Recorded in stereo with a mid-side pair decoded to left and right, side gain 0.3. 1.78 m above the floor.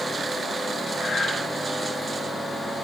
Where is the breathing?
65° left, 3 m.